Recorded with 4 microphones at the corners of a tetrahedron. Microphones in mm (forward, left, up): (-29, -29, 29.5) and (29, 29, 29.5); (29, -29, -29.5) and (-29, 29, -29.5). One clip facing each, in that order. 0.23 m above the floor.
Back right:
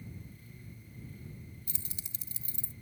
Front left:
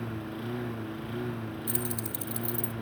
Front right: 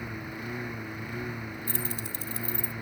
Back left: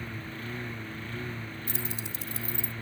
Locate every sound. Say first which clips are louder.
0.0 s a lawn mower: front left 15 dB, front right 2 dB; 30° left
1.7 s keys jangling: front left 17 dB, front right 2 dB; straight behind